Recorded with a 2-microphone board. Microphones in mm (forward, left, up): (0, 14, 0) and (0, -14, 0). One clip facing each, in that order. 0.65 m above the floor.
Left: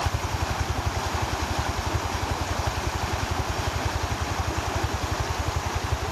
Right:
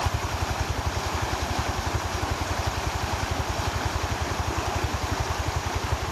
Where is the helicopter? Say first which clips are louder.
Even; centre (ahead or behind).